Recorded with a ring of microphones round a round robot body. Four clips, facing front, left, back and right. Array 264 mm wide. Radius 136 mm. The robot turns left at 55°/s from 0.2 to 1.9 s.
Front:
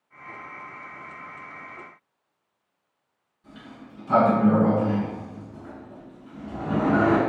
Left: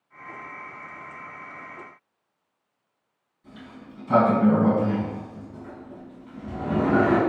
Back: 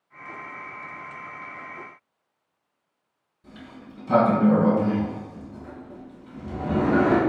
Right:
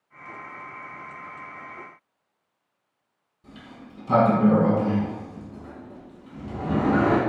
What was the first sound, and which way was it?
A sliding door, 120° right.